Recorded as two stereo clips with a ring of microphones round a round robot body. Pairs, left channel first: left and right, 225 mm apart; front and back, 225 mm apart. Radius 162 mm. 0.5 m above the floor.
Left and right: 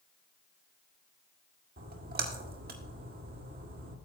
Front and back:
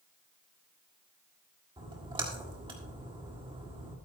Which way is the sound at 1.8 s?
115° right.